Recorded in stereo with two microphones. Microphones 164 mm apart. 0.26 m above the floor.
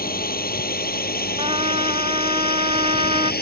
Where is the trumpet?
35° right (ahead or behind).